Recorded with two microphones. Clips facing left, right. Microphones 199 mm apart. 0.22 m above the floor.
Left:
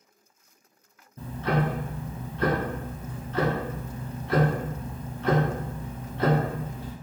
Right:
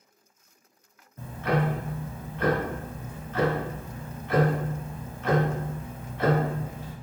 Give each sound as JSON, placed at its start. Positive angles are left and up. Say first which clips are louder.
{"t": 1.2, "sound": "ticking", "louder": "even", "side_deg": 35, "distance_m": 0.8}